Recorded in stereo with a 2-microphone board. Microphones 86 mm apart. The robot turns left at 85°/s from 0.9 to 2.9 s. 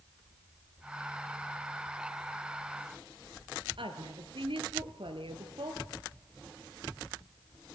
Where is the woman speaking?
75° right (ahead or behind), 4 m.